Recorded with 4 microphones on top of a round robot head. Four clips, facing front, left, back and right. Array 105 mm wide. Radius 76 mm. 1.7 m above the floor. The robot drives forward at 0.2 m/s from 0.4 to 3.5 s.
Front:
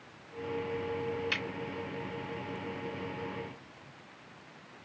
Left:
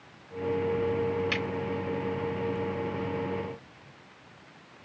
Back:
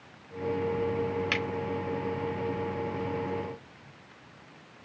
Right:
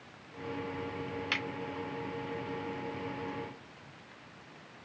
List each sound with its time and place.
1.3 s a finger snap: 175° left, 1.5 m; by 1.4 s straight behind, 1.5 m